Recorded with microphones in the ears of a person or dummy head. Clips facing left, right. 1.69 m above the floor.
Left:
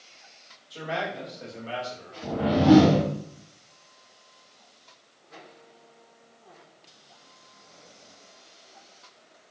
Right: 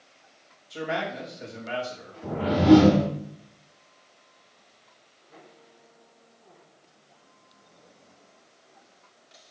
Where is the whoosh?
10° left (ahead or behind), 2.5 m.